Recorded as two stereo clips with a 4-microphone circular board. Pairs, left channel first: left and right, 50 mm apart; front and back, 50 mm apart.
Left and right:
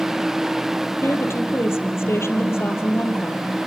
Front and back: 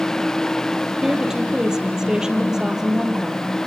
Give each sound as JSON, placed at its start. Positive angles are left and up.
{"t": 1.0, "sound": "a woman speaking", "azimuth_deg": 105, "distance_m": 3.5}